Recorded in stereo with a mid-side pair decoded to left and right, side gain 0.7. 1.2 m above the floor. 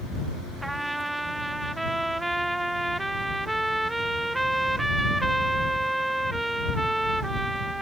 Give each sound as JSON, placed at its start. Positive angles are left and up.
{"t": 0.6, "sound": "a trumpet", "azimuth_deg": -10}